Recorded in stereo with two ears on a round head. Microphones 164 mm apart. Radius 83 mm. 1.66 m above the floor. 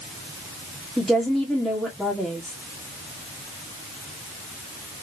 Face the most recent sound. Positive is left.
turn(degrees=-5)  # may be behind; listen again after turning